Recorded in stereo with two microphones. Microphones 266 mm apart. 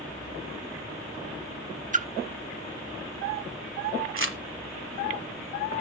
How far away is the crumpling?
About 1.3 m.